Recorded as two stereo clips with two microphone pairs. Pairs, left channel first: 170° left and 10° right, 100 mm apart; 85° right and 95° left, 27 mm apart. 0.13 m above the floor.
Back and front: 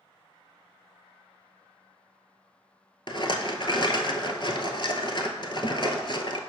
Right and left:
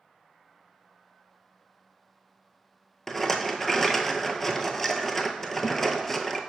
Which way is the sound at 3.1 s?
160° right.